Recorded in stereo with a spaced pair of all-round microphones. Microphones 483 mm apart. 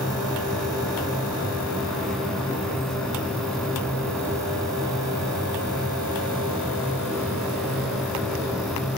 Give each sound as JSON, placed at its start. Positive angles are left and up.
{"t": 0.0, "sound": "a machine running", "side_deg": 0, "distance_m": 2.0}